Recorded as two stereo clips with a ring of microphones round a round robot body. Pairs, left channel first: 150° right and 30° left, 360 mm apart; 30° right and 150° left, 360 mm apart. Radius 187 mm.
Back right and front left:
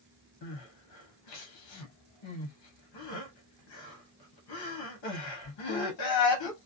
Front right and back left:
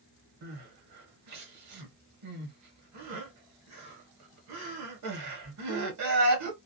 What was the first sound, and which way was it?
Crying, 170° right.